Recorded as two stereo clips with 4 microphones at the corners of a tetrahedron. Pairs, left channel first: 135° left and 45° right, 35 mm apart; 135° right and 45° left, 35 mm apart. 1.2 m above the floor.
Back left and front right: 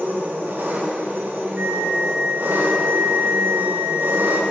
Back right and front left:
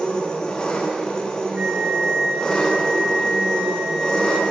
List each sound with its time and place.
0.0 s an engine running: 65° right, 1.7 m
1.6 s a flute: 15° right, 0.6 m